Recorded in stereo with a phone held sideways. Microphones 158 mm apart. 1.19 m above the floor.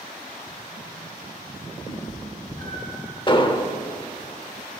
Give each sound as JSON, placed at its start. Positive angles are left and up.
{"t": 1.9, "sound": "a cat meowing", "side_deg": 60, "distance_m": 4.5}
{"t": 3.3, "sound": "an explosion", "side_deg": 35, "distance_m": 0.9}